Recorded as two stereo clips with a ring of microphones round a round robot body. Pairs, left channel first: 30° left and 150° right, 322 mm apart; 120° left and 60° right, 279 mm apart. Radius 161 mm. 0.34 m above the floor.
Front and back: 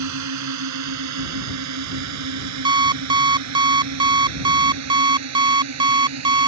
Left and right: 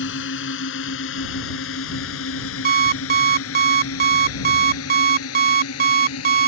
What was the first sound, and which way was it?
A drone, 175° left.